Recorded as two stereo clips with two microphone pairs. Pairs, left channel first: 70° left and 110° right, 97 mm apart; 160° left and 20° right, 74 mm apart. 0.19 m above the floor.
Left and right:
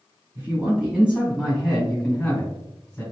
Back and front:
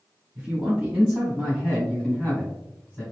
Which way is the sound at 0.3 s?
70° right.